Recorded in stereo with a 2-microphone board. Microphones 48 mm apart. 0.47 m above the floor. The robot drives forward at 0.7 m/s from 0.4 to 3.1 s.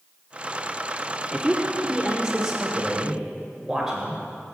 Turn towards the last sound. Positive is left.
turn(degrees=-10)  # may be behind; listen again after turning